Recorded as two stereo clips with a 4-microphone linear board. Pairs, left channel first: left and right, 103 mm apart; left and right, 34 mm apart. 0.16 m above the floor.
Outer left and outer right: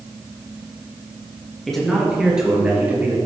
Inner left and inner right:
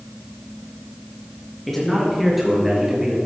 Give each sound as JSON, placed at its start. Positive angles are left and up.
{"t": 1.7, "sound": "a man speaking", "side_deg": 5, "distance_m": 3.0}